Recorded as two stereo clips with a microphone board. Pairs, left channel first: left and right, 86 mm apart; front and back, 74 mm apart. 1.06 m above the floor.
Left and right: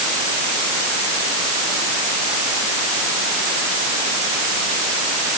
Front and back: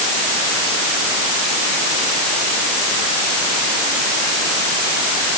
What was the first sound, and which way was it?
Only background noise.